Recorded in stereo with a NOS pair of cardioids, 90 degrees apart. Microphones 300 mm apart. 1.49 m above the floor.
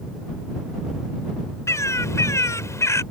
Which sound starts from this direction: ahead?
A bird, at 1.7 s.